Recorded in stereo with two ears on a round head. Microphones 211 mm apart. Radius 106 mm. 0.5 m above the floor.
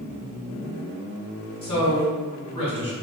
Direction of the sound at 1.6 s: 25° left (ahead or behind).